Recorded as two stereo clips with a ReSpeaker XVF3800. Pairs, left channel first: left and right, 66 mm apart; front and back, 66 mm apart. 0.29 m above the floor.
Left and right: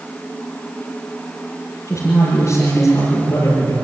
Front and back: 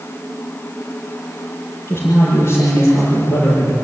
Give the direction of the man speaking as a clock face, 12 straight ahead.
11 o'clock.